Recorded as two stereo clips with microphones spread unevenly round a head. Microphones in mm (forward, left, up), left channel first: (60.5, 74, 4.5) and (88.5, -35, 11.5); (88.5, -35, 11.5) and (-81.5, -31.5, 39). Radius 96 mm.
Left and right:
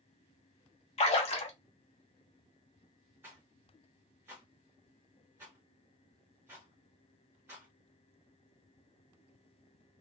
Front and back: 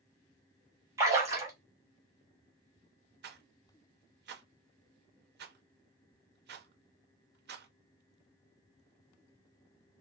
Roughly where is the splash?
Left.